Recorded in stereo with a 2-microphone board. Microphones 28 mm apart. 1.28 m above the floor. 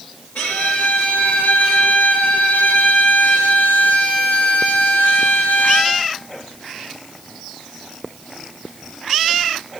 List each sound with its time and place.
0.3 s a violin: 75° left (ahead or behind), 5.5 m